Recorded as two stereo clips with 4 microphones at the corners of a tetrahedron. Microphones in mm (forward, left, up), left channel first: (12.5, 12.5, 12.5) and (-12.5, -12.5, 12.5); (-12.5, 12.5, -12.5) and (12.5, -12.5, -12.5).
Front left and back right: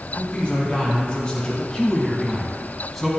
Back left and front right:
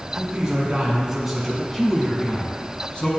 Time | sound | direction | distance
0.2 | a man speaking | 10° left | 1.5 m